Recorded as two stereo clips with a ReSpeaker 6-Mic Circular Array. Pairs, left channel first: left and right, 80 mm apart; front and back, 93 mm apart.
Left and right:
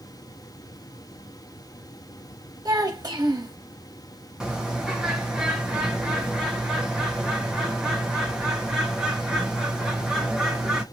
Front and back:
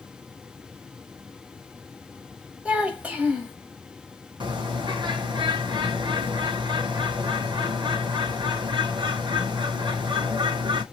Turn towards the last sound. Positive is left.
turn(degrees=-170)